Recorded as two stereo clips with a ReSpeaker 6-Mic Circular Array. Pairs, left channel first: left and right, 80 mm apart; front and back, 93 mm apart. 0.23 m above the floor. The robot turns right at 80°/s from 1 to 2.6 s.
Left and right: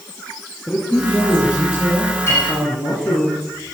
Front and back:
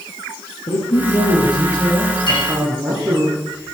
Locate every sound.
0.7 s a man speaking: straight ahead, 4 m; by 3.3 s 130° left, 4 m
2.3 s a clink: 35° left, 7 m; by 2.5 s 55° left, 7 m